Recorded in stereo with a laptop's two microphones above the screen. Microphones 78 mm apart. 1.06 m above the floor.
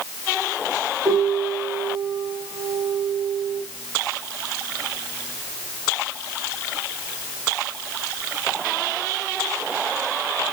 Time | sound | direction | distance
1.1 | a piano | 80° right | 6.5 m